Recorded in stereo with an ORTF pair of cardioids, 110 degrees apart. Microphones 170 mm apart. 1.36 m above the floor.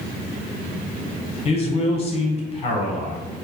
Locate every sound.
1.4 s a man speaking: 35° left, 0.9 m